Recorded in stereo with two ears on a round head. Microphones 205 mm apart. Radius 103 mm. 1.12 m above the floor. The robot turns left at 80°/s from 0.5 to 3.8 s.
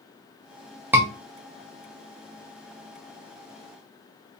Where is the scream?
10° right (ahead or behind), 2.5 m; by 1.1 s 20° right (ahead or behind), 2.5 m.